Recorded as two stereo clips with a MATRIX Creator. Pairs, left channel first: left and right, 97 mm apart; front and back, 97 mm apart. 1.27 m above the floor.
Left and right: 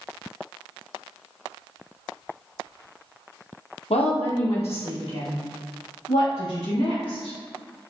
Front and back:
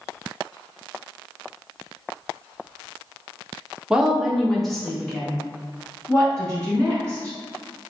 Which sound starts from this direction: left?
A woman speaking, at 3.9 s.